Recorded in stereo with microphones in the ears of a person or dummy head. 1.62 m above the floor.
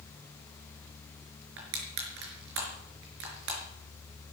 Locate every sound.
1.6 s crushing: 65° right (ahead or behind), 4.5 m